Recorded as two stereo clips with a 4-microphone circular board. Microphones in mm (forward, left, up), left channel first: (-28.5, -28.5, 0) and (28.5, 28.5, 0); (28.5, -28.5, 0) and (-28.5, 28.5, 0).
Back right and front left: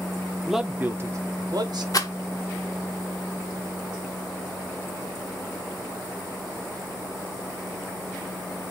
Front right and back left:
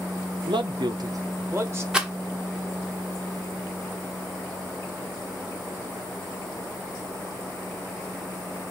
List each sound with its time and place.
0.5 s a man speaking: 135° left, 0.7 m; by 1.8 s 75° left, 1.2 m
1.9 s a rattle: 150° right, 0.9 m